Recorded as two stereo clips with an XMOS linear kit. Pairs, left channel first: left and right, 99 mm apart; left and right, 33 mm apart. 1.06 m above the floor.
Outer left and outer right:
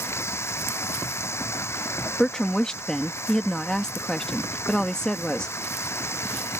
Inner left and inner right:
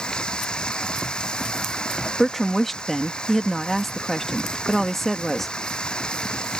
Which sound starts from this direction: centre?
A woman speaking, at 2.2 s.